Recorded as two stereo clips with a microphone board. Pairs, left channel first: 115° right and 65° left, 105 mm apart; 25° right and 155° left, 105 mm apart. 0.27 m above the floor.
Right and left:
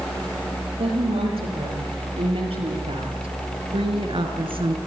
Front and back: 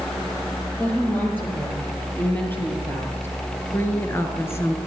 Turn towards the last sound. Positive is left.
turn(degrees=40)